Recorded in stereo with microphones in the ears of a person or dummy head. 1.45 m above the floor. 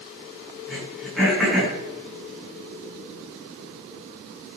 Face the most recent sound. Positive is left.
turn(degrees=-5)  # may be behind; listen again after turning